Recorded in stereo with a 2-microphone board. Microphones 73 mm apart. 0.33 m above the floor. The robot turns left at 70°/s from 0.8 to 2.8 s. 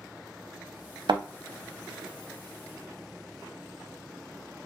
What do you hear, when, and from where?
1.1 s a thud: 75° right (ahead or behind), 0.5 m; by 1.2 s 80° right, 0.5 m